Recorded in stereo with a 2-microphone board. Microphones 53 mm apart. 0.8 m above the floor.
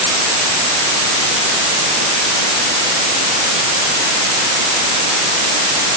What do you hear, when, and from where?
Only background noise.